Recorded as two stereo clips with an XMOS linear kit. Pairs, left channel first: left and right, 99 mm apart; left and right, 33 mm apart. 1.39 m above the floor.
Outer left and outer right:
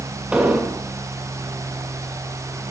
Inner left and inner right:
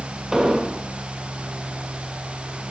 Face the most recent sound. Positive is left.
turn(degrees=-10)  # may be behind; listen again after turning